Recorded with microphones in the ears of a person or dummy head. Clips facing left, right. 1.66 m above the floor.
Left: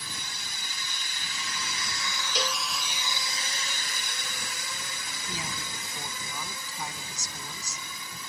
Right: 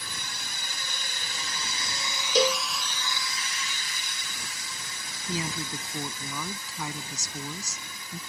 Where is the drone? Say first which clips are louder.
Right 1 dB; 50° right (ahead or behind); by 8.3 s 80° left.